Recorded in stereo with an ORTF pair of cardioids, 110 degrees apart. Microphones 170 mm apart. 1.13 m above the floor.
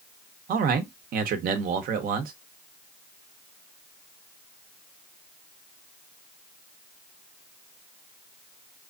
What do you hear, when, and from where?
0.5 s a man speaking: 65° right, 1.0 m